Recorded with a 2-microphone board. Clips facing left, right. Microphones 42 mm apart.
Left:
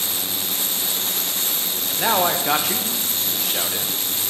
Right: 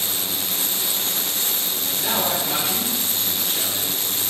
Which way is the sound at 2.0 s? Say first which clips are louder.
Left 5 dB; 75° left (ahead or behind).